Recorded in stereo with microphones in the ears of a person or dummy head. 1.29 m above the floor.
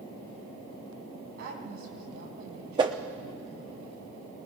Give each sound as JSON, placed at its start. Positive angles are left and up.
{"t": 1.4, "sound": "a woman speaking", "side_deg": -65, "distance_m": 6.0}
{"t": 2.8, "sound": "a whoosh", "side_deg": -25, "distance_m": 0.8}